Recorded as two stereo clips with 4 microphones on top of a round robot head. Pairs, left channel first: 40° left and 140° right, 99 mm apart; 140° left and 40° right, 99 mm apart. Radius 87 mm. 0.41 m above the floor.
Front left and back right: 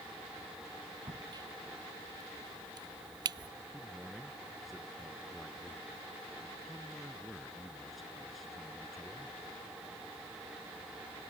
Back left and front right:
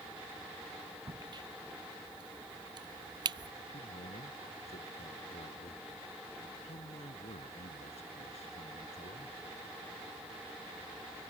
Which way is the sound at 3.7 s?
130° left.